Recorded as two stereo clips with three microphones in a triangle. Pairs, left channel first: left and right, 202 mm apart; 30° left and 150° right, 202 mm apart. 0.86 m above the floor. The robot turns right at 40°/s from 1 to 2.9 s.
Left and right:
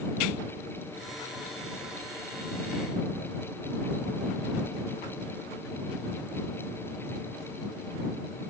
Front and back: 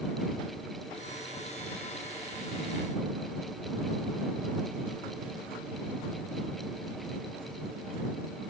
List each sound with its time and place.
Only background noise.